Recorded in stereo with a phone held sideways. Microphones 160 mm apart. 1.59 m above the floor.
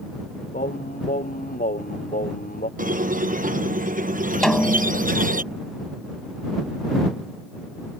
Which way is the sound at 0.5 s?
65° left (ahead or behind).